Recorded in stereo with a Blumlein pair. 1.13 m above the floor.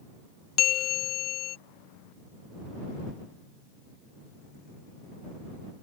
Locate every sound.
0.6 s a bell: 30° left